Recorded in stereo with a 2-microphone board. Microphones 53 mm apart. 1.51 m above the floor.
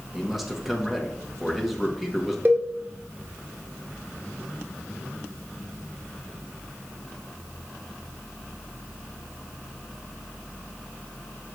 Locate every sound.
0.1 s a man speaking: 5° right (ahead or behind), 1.5 m
2.5 s a cowbell: 40° right (ahead or behind), 1.1 m